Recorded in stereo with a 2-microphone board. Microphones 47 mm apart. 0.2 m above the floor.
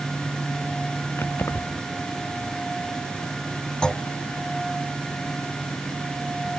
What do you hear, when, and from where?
1.2 s keys jangling: 65° left (ahead or behind)
3.8 s a clunk: 20° left (ahead or behind)